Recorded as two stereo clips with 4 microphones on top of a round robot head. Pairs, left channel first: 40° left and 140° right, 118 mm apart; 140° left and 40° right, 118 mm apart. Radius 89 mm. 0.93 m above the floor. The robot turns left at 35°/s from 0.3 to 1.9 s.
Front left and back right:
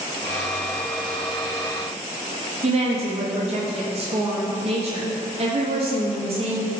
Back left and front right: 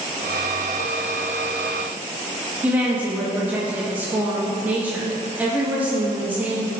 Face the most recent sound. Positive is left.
turn(degrees=-115)